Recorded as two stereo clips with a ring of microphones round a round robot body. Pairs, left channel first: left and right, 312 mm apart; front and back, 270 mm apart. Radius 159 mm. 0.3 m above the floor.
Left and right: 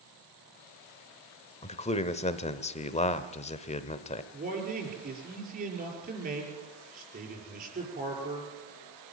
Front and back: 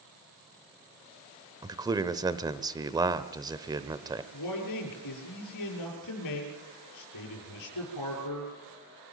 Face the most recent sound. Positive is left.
turn(degrees=-25)